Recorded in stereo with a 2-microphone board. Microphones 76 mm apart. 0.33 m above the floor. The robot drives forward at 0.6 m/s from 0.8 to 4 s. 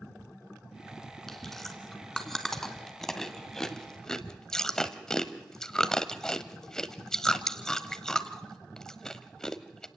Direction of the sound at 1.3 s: 5° left (ahead or behind).